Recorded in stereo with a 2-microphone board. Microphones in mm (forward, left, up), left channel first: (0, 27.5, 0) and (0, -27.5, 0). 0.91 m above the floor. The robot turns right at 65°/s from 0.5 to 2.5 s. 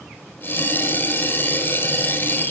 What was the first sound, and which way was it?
Only background noise.